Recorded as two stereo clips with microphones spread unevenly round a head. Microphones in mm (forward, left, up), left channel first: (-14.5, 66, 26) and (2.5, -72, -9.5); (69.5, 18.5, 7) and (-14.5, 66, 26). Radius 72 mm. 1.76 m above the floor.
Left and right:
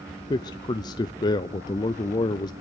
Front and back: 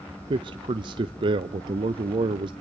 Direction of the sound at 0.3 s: 145° left.